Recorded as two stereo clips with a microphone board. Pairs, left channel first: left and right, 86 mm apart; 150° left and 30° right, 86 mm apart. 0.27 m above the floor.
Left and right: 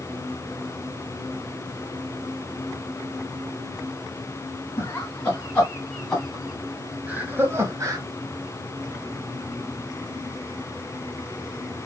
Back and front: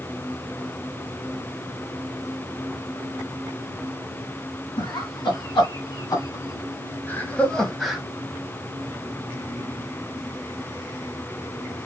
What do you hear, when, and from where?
4.8 s laughter: 155° left, 2.5 m; by 8.0 s 115° right, 1.5 m